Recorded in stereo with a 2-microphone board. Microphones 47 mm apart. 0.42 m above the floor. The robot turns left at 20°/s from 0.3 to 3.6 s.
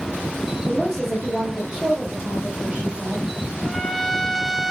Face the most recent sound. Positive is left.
turn(degrees=0)  # may be behind; listen again after turning